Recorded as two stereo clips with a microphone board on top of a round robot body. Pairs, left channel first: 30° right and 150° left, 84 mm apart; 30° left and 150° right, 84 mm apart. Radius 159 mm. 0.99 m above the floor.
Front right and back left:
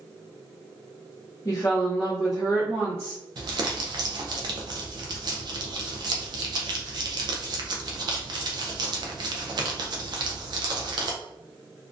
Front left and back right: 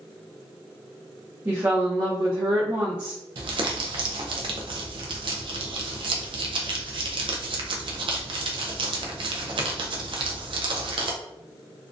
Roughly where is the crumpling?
Behind.